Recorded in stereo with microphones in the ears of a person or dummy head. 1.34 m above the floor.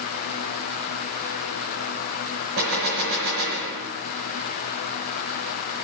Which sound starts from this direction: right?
A gunshot, at 2.6 s.